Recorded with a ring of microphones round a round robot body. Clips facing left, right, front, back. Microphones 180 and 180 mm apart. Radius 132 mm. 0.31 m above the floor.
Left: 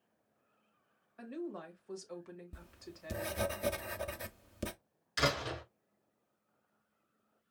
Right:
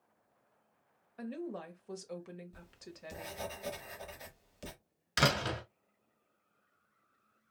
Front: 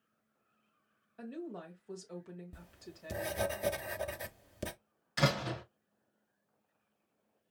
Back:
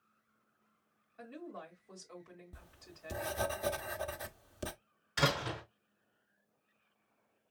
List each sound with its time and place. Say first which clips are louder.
1.2 s a woman speaking: right 1 dB, front 4 dB; 50° right, 1.6 m
2.5 s writing: even, front 6 dB; 70° left, 0.7 m
5.2 s a door slam: right 2 dB, front 2 dB; 85° right, 1.6 m